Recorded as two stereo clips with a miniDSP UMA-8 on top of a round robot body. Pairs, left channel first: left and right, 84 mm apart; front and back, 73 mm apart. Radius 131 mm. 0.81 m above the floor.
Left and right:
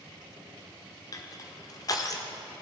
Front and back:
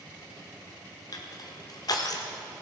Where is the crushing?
40° left, 1.1 m.